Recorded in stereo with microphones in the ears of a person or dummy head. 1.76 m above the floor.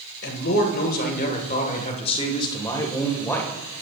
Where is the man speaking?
55° left (ahead or behind), 2 m; by 3.5 s 5° left (ahead or behind), 1.9 m.